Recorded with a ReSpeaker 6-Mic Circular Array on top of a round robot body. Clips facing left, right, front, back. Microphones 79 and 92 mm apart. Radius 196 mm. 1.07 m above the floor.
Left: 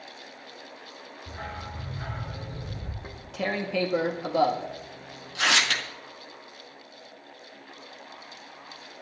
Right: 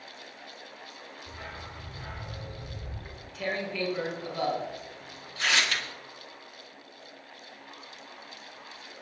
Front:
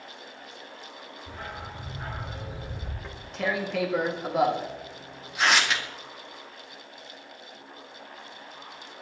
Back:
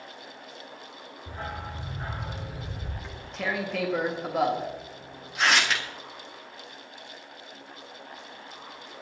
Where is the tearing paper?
90° left, 1.8 m.